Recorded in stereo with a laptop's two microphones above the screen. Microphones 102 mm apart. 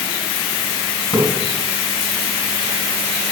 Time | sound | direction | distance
1.1 | a splash | 40° left (ahead or behind) | 5 m